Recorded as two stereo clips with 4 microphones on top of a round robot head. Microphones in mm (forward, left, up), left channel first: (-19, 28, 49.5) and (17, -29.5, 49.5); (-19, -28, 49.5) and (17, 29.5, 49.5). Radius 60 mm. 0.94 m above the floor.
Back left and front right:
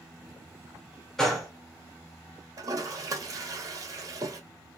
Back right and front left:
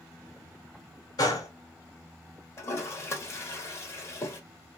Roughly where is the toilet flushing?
Right.